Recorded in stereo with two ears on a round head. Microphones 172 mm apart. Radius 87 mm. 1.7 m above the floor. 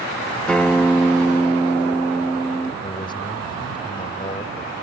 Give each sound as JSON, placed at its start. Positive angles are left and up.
{"t": 0.5, "sound": "a guitar", "side_deg": 5}
{"t": 2.8, "sound": "a man speaking", "side_deg": 25}